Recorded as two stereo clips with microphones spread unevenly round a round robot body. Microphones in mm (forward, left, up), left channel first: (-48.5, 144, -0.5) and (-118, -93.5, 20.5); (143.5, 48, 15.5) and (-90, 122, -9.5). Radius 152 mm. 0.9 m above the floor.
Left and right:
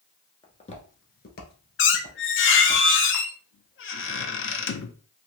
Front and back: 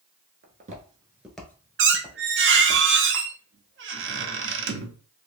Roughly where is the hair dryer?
I don't hear a hair dryer.